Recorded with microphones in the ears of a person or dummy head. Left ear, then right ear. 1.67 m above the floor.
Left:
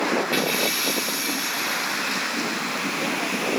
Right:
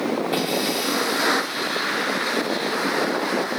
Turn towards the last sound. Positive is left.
turn(degrees=20)  # may be behind; listen again after turning